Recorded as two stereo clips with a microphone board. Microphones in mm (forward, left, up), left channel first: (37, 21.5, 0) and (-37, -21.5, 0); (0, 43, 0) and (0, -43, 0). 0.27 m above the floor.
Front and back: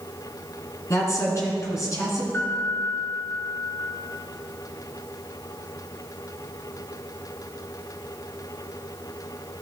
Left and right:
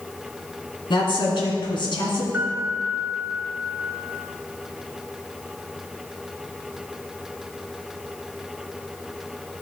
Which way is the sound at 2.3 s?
15° right.